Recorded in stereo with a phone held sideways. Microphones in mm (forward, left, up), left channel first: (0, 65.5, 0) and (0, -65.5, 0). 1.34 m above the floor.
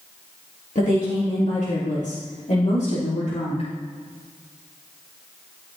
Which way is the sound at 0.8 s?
75° left (ahead or behind).